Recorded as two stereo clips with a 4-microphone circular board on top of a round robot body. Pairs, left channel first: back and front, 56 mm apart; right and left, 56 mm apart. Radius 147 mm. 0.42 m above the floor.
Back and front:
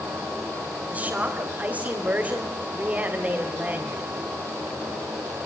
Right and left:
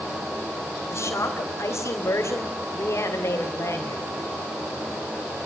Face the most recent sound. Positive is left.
turn(degrees=-60)